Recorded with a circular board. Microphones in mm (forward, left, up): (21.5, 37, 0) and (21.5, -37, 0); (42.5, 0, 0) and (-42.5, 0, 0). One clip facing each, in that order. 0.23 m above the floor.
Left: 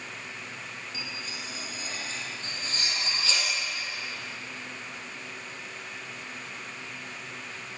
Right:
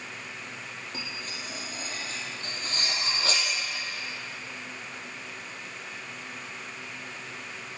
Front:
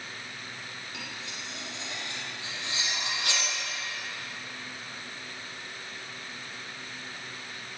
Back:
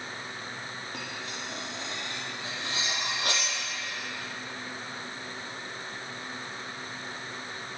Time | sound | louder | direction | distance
0.9 | cutlery clinking | right 1 dB, back 3 dB | 130° right | 5 m